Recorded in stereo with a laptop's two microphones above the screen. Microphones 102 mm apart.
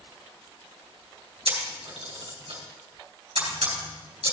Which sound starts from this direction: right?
A camera shutter, at 1.4 s.